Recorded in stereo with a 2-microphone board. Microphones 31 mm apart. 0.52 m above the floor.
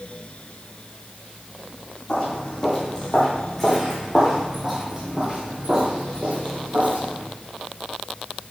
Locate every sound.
2.1 s footsteps: 30° left (ahead or behind), 1.9 m; by 7.2 s 55° right (ahead or behind), 1.9 m